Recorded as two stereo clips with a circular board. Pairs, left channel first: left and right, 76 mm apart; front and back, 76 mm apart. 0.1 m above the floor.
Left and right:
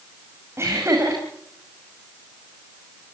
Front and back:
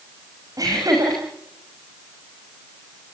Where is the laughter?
140° right, 6 m.